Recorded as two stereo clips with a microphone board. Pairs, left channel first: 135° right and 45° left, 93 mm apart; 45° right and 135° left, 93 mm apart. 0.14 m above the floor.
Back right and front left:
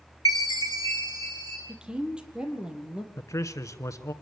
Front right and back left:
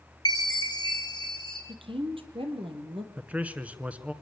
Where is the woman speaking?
125° left, 4.5 m.